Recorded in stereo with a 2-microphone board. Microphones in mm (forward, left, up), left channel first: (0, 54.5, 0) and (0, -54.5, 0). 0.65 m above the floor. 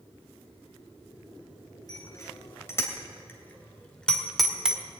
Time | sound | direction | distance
1.9 | a bicycle bell | 30° left (ahead or behind) | 3 m